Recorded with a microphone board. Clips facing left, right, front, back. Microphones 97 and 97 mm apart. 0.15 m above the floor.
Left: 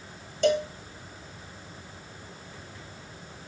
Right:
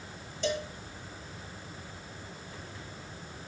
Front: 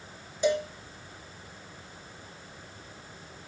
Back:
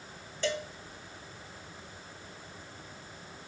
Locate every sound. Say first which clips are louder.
0.4 s a cowbell: left 9 dB, front 7 dB; 70° left, 1.5 m